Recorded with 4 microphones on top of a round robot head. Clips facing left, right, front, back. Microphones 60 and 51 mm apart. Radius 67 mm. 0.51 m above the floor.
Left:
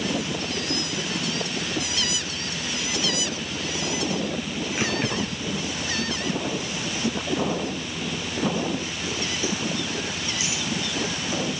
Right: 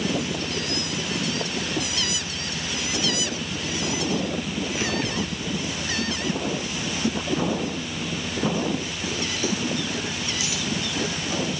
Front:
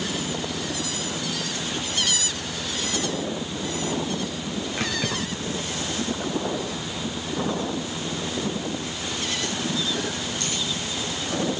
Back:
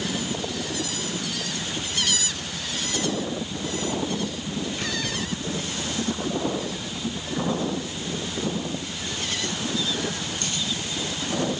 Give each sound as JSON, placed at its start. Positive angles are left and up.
{"t": 4.8, "sound": "keys jangling", "azimuth_deg": 25, "distance_m": 5.5}